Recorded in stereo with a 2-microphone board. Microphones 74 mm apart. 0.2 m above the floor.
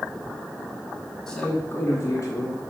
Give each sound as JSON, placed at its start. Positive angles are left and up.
{"t": 1.3, "sound": "a man speaking", "side_deg": 10, "distance_m": 1.1}